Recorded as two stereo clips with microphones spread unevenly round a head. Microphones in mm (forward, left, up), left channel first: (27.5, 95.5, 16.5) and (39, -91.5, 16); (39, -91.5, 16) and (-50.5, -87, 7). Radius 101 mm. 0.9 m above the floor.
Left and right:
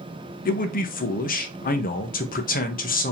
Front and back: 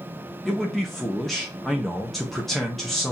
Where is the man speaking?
90° left, 0.8 m.